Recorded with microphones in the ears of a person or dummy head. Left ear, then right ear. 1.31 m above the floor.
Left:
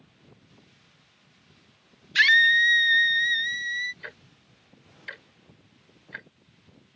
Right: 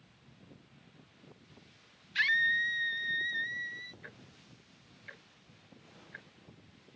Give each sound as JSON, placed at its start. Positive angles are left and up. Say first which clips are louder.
{"t": 2.1, "sound": "a scream", "louder": "left 11 dB", "side_deg": 30}
{"t": 4.0, "sound": "ticking", "louder": "left 9 dB", "side_deg": 35}